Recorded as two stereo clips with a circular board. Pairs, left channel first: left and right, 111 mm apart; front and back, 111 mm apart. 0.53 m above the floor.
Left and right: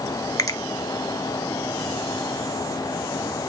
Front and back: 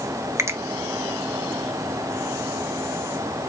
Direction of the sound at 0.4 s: 125° left.